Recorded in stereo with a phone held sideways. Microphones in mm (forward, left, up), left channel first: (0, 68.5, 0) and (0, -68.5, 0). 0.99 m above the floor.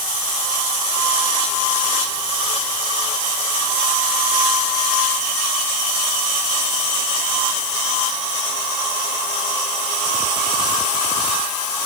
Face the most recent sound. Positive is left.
No sound to turn to.